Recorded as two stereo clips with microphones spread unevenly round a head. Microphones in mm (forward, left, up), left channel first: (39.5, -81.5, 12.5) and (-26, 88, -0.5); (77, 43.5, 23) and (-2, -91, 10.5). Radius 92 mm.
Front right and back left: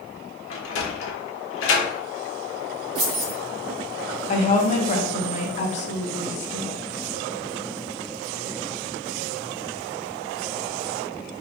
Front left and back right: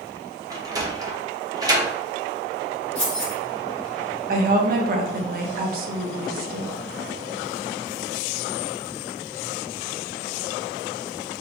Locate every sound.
0.5 s a sliding door: 55° right, 0.9 m
3.0 s keys jangling: 145° left, 1.4 m
4.3 s a woman speaking: 110° right, 0.7 m